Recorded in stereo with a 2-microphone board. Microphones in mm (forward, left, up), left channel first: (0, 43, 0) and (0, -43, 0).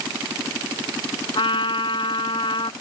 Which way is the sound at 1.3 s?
80° left.